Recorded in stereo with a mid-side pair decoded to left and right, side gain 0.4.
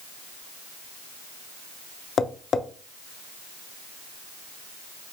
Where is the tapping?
50° left, 0.5 m.